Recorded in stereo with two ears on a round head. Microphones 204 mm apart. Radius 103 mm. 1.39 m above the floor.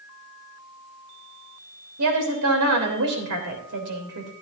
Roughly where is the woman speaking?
Right.